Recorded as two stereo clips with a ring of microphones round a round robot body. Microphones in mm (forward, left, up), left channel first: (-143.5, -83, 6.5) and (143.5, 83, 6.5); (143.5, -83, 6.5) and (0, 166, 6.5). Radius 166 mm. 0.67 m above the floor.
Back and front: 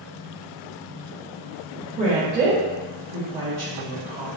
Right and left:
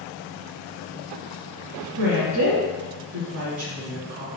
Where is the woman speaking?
90° left, 2.0 m.